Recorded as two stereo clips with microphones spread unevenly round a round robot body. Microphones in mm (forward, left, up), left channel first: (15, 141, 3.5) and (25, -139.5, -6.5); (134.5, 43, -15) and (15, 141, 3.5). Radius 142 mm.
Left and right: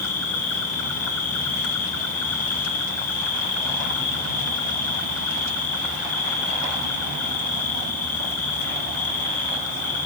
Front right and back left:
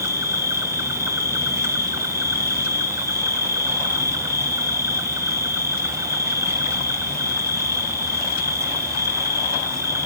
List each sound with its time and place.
0.0 s an insect: 65° left, 0.8 m